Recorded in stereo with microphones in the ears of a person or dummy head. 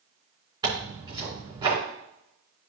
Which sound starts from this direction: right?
Tearing paper, at 0.6 s.